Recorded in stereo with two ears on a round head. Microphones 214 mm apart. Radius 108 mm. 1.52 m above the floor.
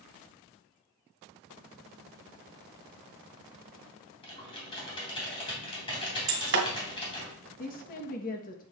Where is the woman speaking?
35° left (ahead or behind), 1.3 m.